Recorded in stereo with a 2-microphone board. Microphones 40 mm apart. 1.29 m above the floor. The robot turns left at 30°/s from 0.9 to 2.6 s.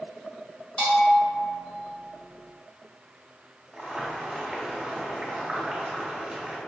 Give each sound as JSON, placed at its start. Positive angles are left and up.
{"t": 0.8, "sound": "a bell", "side_deg": 25, "distance_m": 2.0}
{"t": 3.7, "sound": "boiling", "side_deg": -10, "distance_m": 1.5}